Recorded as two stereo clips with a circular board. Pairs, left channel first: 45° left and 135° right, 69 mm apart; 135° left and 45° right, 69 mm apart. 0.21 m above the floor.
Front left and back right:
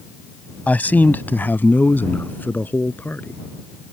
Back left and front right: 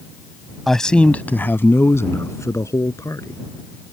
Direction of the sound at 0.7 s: 55° left.